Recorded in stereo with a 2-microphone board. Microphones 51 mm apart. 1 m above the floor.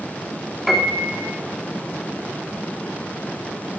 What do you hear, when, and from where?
0.7 s a piano: 5° right (ahead or behind), 2.5 m